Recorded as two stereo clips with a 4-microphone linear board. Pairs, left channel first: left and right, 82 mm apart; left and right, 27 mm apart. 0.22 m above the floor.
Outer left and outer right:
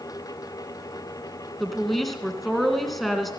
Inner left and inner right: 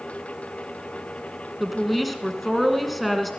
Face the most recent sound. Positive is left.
turn(degrees=0)  # may be behind; listen again after turning